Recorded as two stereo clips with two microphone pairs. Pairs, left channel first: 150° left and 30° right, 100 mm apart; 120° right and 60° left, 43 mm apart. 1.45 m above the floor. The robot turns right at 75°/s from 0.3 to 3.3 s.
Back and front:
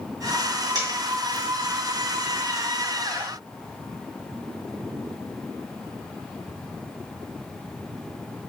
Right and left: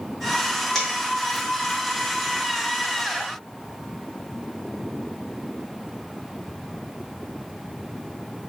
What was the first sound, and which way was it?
A dropped coin, 35° right.